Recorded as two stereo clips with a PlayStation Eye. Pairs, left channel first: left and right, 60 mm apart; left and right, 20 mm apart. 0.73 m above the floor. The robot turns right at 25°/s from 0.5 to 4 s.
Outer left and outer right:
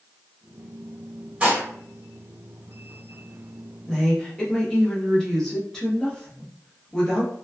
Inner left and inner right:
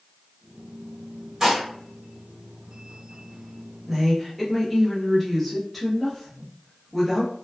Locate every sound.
1.4 s dishes clattering: 25° right (ahead or behind), 1.5 m; by 1.6 s 30° right (ahead or behind), 1.5 m
3.9 s a woman speaking: 10° left (ahead or behind), 0.9 m